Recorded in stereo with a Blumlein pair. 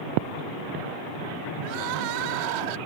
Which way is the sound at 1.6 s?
45° right.